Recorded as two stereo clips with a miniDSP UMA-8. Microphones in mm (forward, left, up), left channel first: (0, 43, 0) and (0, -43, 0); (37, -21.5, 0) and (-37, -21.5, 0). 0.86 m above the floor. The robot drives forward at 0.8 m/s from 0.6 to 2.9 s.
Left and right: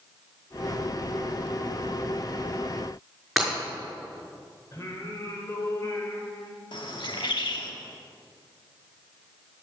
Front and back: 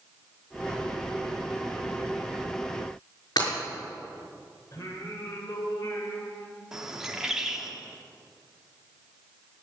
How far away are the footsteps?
No footsteps in this recording.